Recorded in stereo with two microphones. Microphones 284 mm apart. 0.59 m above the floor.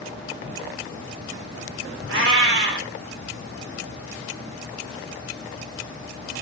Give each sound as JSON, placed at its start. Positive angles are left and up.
{"t": 2.1, "sound": "a cat meowing", "side_deg": -50, "distance_m": 1.0}